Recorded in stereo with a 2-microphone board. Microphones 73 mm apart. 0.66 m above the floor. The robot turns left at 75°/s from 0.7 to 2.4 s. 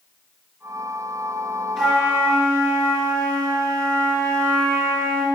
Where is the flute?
5° left, 2.5 m; by 5.2 s 40° right, 2.5 m.